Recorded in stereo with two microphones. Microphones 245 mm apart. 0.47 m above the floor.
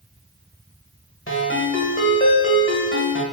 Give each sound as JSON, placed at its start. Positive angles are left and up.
{"t": 1.3, "sound": "a ringtone", "side_deg": 55, "distance_m": 1.3}